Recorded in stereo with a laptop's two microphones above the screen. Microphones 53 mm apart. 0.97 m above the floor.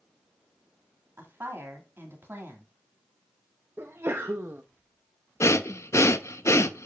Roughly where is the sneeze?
Right.